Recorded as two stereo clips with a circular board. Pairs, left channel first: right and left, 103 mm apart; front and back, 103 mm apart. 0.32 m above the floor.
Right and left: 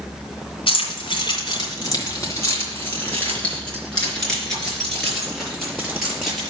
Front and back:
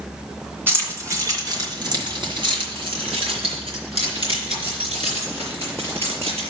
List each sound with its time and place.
0.7 s keys jangling: 110° right, 2.5 m; by 6.5 s 175° left, 5.5 m